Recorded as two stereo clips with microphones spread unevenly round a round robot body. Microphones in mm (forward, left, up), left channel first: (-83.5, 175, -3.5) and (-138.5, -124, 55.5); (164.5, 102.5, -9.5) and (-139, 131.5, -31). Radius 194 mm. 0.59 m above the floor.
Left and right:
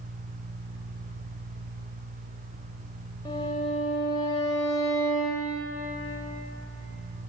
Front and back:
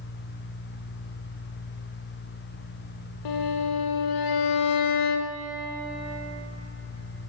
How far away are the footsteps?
I don't hear footsteps.